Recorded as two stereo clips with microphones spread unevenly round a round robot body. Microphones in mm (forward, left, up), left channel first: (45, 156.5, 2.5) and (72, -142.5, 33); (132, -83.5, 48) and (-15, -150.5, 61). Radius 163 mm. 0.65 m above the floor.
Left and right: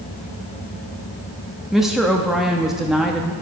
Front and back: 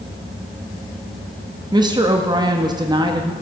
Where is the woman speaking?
175° left, 0.9 m.